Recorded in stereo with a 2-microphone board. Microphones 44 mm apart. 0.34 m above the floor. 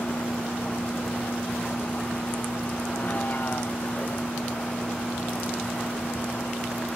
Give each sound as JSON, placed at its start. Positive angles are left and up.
{"t": 0.0, "sound": "a vehicle", "side_deg": 40}